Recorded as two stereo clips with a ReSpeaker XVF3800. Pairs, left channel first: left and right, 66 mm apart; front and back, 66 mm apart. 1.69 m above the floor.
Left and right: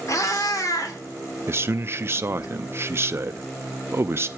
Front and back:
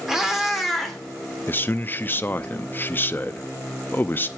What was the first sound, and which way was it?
A cat meowing, 100° left.